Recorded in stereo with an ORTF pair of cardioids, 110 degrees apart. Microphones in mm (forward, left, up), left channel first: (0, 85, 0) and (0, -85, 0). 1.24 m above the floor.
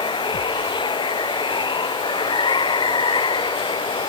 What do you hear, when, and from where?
0.0 s running water: 30° left